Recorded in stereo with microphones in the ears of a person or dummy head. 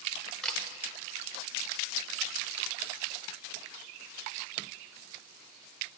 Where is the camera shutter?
5° left (ahead or behind), 0.6 m.